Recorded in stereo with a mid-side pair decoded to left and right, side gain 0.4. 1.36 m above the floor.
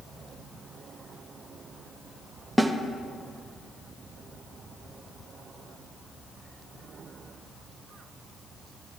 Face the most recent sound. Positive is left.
turn(degrees=-5)